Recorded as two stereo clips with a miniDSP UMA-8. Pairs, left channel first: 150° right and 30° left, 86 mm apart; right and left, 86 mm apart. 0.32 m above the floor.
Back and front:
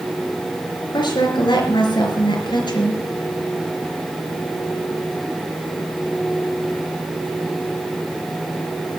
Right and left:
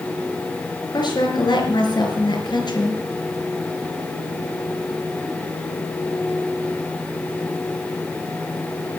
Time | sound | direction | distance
0.9 | a woman speaking | 125° right | 4.5 m